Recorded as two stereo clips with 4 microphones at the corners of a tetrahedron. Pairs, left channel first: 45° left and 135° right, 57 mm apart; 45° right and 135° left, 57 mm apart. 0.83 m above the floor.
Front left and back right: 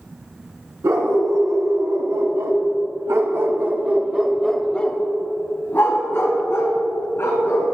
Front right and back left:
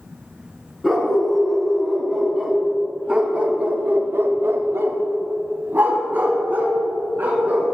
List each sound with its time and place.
0.8 s a dog barking: 130° right, 2.5 m; by 7.7 s 75° left, 2.5 m